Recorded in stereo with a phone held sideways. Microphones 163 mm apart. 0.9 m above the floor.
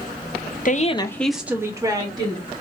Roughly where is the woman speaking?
Left.